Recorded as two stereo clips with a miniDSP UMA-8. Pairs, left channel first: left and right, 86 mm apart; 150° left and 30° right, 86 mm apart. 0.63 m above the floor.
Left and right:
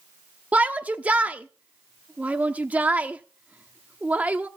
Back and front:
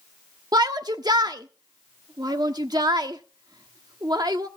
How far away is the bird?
I don't hear a bird.